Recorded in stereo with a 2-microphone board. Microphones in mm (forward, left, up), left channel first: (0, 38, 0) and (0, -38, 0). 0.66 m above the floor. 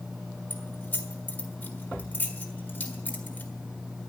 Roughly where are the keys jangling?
Left.